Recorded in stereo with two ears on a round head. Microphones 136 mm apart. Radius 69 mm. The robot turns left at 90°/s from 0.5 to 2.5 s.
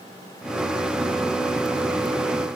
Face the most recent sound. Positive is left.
No sound to turn to.